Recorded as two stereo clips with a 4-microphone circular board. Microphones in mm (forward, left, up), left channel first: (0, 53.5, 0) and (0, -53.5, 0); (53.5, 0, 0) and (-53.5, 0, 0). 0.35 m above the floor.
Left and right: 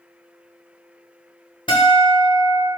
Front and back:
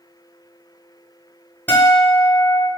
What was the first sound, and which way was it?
A guitar, 70° left.